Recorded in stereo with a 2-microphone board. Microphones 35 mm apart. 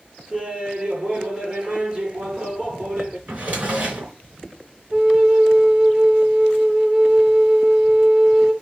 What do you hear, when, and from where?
0.3 s laughter: 35° right (ahead or behind), 3.5 m
3.3 s a drawer: 50° right (ahead or behind), 3.5 m
4.9 s a flute: 30° right (ahead or behind), 0.9 m